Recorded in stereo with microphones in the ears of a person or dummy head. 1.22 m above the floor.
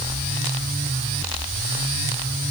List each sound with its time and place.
Only background noise.